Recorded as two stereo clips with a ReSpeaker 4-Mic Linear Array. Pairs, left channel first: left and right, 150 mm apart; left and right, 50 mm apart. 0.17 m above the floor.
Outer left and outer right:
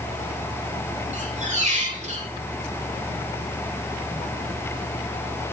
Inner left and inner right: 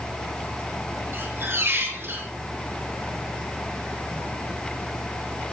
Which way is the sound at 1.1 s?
50° right (ahead or behind).